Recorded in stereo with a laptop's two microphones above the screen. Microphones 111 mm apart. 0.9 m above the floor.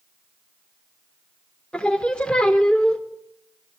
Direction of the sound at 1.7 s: 10° left (ahead or behind).